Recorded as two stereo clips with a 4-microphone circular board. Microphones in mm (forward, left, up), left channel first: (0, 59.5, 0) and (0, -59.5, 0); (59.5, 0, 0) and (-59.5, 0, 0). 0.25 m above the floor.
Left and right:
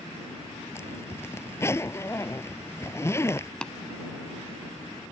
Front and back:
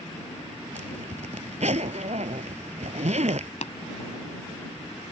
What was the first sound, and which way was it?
A zipper, 160° left.